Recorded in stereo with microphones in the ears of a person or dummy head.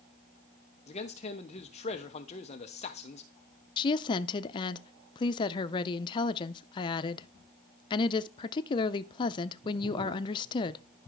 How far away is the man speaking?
About 0.9 m.